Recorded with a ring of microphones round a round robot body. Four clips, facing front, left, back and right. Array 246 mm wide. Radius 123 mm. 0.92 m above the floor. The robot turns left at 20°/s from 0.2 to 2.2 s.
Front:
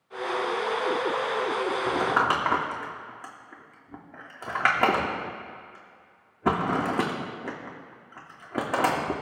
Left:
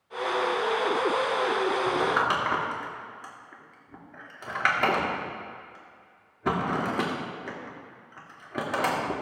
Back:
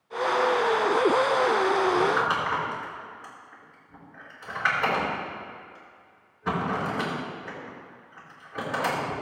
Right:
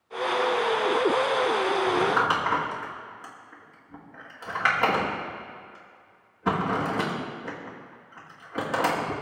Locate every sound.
1.9 s crumpling: 20° left, 2 m; by 9.1 s 15° left, 2 m